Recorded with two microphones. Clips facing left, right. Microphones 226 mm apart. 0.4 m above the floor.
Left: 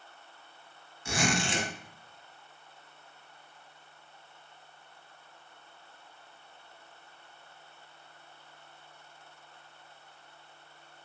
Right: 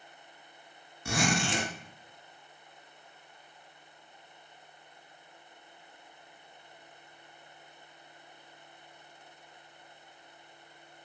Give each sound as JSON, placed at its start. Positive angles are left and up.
{"t": 1.1, "sound": "a zipper", "side_deg": -70, "distance_m": 0.8}